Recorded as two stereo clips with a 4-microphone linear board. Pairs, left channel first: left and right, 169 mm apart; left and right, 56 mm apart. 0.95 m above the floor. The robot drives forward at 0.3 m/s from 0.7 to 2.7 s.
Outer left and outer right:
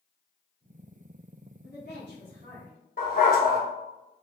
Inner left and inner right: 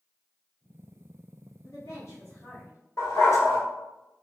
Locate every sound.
1.6 s a woman speaking: 65° left (ahead or behind), 1.3 m; by 2.8 s 60° left (ahead or behind), 1.4 m
3.0 s a dog barking: 55° left (ahead or behind), 1.4 m